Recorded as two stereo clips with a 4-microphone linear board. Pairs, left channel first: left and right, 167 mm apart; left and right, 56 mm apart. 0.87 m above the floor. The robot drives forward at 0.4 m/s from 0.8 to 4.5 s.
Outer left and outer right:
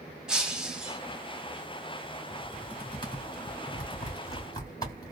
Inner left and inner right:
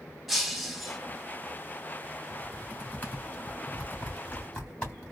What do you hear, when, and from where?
0.3 s breaking glass: 5° right (ahead or behind), 1.0 m
2.3 s typing on a keyboard: 35° left (ahead or behind), 1.6 m; by 5.1 s 20° left (ahead or behind), 2.5 m